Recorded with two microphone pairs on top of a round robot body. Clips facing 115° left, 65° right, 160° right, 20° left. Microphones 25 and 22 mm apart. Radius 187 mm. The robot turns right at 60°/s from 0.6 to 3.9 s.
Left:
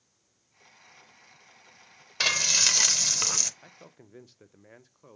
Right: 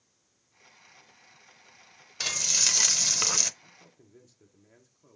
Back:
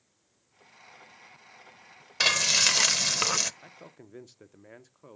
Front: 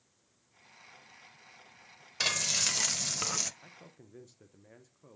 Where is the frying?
160° left, 0.7 m; by 3.5 s 120° right, 0.7 m.